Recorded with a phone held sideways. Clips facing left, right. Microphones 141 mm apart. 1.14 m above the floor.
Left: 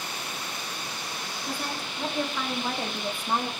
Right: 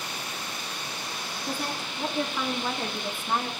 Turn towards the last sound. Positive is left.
turn(degrees=20)  # may be behind; listen again after turning